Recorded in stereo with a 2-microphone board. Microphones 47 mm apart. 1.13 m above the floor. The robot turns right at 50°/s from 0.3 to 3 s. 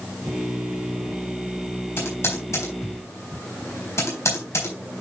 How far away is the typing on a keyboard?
About 3.5 m.